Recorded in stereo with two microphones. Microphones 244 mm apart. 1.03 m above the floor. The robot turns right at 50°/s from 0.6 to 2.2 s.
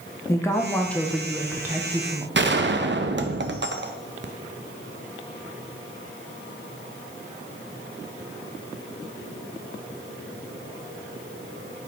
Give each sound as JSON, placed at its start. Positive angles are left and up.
{"t": 0.3, "sound": "a woman speaking", "side_deg": 10, "distance_m": 0.8}
{"t": 2.4, "sound": "a gunshot", "side_deg": -50, "distance_m": 0.5}